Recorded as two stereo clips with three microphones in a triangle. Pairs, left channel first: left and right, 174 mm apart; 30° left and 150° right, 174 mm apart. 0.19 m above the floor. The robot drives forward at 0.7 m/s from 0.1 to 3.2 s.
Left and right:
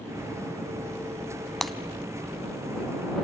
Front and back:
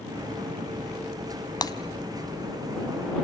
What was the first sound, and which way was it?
Breaking glass, straight ahead.